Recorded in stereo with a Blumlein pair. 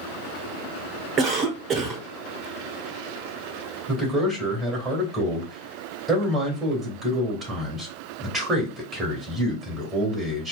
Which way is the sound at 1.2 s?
25° right.